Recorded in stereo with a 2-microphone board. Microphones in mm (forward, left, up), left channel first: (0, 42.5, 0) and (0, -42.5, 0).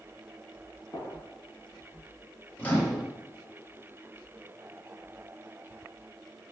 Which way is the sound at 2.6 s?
20° left (ahead or behind).